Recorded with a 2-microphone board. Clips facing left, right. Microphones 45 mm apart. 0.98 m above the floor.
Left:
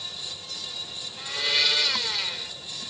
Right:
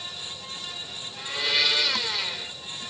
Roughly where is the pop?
No pop in this recording.